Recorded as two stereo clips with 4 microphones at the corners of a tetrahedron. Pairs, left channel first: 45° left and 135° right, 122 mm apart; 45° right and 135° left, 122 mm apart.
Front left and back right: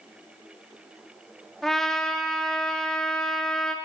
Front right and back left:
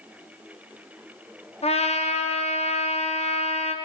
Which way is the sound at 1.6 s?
40° right.